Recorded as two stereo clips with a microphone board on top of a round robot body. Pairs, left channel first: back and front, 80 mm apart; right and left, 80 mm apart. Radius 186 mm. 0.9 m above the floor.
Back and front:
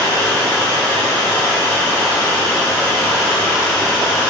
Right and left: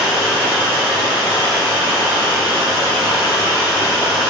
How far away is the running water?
About 1.8 m.